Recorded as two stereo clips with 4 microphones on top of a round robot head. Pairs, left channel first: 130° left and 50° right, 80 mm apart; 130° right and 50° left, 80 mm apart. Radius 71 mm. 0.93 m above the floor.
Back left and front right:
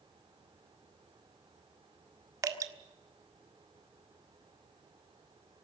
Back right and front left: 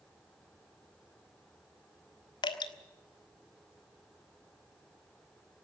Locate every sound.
2.4 s dripping: 100° right, 1.5 m